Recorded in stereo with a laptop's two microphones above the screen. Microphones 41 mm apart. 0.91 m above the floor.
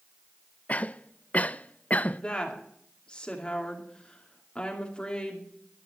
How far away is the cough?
About 0.5 m.